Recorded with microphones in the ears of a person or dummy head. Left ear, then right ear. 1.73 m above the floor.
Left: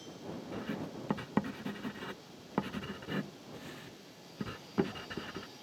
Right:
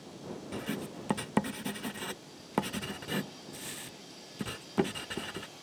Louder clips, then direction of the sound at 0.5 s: Right 3 dB; 10° right (ahead or behind).